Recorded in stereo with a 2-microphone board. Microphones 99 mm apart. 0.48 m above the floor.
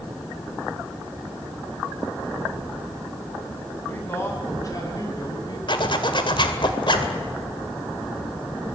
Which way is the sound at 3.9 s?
20° left (ahead or behind).